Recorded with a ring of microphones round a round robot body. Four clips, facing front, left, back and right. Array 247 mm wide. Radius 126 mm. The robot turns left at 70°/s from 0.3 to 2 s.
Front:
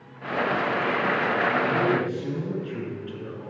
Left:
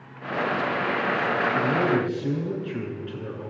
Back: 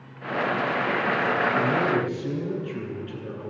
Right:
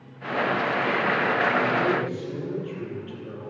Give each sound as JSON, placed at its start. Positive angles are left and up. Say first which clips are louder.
{"t": 1.6, "sound": "a man speaking", "louder": "left 1 dB, even", "azimuth_deg": 100, "distance_m": 8.0}